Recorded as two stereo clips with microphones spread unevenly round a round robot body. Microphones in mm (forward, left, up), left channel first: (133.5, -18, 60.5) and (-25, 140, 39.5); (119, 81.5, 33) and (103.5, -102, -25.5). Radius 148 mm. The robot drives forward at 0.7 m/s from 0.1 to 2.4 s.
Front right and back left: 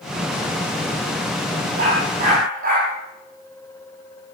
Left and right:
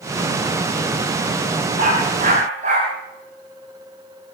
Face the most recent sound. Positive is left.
turn(degrees=-165)